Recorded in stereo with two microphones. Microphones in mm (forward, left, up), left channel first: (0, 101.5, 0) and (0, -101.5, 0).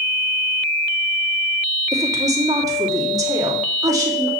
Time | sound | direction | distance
1.9 | a woman speaking | 15° right (ahead or behind) | 2.5 m